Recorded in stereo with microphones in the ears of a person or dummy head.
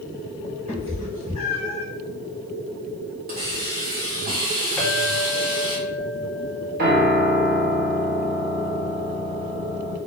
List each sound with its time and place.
0.7 s a cat meowing: 25° right (ahead or behind), 1.0 m; by 1.9 s 25° left (ahead or behind), 0.9 m
3.3 s a hiss: 50° right (ahead or behind), 1.6 m
4.8 s a clink: centre (ahead or behind), 1.0 m
6.8 s a piano: 55° right (ahead or behind), 0.8 m